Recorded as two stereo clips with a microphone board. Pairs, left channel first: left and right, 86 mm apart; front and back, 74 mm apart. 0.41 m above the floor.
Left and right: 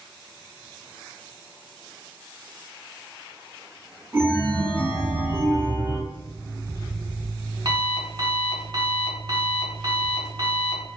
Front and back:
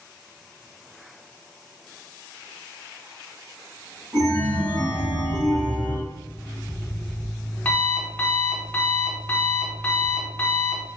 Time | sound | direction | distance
4.1 | a chime | 155° right | 1.0 m
6.1 | an alarm clock | 65° right | 0.9 m